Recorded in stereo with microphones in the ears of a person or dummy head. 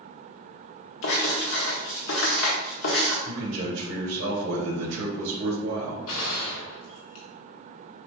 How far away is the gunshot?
About 1.2 m.